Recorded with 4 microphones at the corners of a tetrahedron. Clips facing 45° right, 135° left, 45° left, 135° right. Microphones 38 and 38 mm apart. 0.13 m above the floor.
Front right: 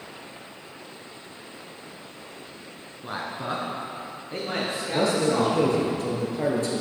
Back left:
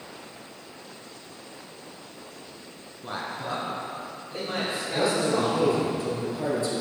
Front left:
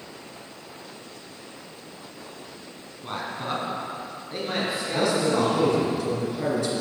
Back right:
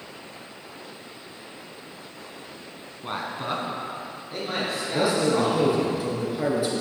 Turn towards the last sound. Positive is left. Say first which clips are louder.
# front right 2 dB, back right 1 dB
turn(degrees=-60)